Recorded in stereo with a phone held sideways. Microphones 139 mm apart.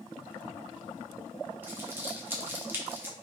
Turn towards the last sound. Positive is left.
turn(degrees=-15)  # may be behind; listen again after turning